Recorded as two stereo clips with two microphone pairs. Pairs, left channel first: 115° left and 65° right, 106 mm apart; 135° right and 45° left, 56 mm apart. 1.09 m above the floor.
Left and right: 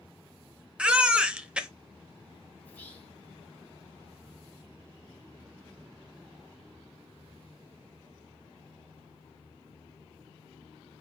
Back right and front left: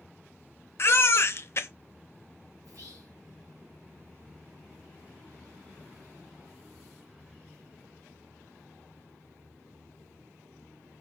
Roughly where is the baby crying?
Behind right.